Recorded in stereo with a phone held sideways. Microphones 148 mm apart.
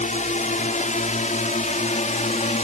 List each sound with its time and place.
0.0 s a drone: 55° left (ahead or behind)